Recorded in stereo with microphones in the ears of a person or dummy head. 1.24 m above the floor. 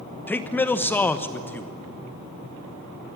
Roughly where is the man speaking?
Centre.